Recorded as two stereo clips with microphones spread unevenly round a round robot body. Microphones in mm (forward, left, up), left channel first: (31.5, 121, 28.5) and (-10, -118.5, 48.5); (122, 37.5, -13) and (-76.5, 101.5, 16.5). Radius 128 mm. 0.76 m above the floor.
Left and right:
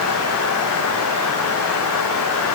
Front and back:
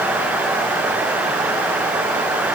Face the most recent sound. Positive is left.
No sound to turn to.